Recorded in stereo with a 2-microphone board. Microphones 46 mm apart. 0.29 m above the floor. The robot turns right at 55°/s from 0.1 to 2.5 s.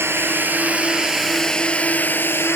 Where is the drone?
65° right; by 2.6 s 65° left.